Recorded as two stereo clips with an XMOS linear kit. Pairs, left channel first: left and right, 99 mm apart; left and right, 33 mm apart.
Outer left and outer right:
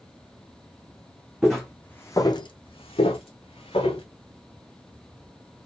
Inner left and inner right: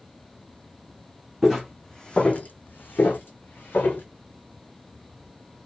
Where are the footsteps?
5° right (ahead or behind), 0.8 m; by 4.0 s 65° left (ahead or behind), 1.3 m.